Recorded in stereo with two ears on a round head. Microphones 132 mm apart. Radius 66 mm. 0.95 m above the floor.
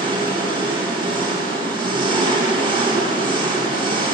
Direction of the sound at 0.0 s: 35° right (ahead or behind).